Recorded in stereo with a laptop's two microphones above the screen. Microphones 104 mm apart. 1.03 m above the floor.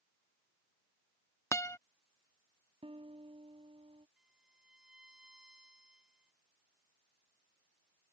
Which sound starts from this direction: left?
A guitar, at 1.5 s.